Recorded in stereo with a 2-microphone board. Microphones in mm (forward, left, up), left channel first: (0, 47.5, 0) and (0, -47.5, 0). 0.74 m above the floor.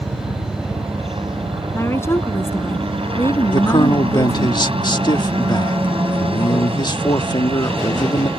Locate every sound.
0.0 s a helicopter: 70° right (ahead or behind)
1.7 s a woman speaking: 25° left (ahead or behind)
3.5 s a man speaking: 50° left (ahead or behind)